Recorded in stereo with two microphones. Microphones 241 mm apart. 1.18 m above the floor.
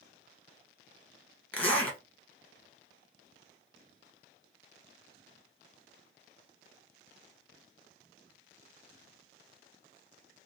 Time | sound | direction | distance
1.5 | a zipper | 5° left (ahead or behind) | 1.0 m